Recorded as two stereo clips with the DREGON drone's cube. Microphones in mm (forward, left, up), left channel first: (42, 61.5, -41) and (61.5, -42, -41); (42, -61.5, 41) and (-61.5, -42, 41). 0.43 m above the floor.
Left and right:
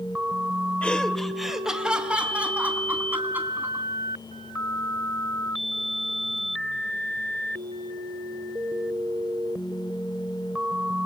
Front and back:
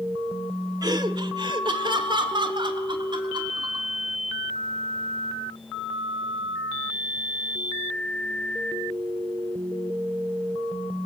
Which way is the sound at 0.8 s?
170° left.